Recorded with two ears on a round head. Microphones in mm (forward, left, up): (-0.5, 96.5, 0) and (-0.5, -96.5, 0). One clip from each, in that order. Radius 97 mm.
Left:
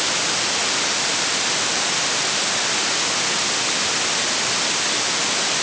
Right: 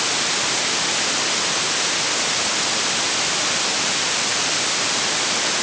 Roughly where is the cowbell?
No cowbell in this recording.